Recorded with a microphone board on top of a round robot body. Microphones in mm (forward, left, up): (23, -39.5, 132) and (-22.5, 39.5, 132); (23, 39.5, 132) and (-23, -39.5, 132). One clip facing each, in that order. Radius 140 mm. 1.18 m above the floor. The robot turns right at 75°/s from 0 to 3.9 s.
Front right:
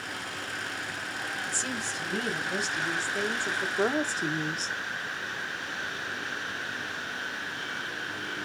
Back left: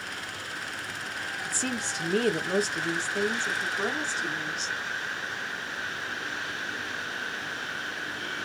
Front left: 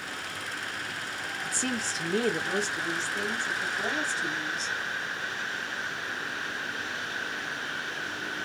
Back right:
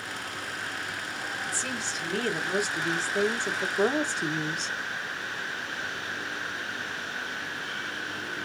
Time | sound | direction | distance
1.4 | a woman speaking | 75° left | 0.9 m